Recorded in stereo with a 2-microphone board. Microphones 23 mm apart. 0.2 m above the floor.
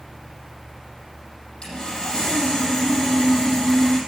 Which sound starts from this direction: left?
Sawing, at 1.6 s.